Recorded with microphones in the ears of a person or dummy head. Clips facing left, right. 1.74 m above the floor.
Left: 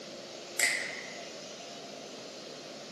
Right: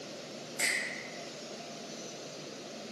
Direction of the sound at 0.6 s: 65° left (ahead or behind).